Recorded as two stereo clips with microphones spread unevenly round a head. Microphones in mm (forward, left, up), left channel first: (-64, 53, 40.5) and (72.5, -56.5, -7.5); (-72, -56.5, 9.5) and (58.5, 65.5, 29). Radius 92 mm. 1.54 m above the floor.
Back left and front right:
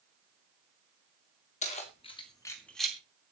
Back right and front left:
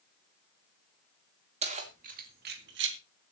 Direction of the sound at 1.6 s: 95° left.